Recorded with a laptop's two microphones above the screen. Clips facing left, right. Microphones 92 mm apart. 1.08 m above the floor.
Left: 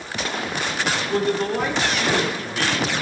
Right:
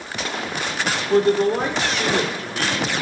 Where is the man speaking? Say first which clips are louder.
Right 7 dB; 40° right (ahead or behind), 3 m.